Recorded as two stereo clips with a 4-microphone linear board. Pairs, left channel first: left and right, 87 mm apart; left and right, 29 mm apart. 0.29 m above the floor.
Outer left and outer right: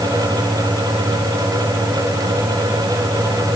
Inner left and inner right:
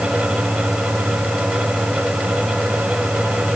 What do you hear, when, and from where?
Only background noise.